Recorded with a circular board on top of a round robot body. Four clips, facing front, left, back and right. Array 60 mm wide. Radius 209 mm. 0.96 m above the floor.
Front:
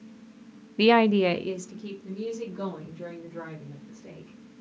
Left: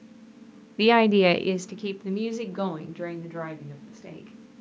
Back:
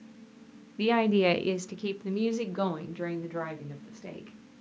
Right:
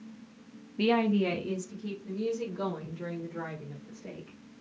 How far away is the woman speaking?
About 0.5 m.